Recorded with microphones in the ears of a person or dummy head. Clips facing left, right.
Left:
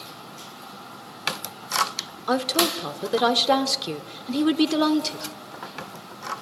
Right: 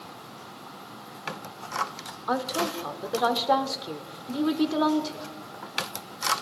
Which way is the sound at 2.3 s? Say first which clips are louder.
Left 5 dB; 40° left (ahead or behind).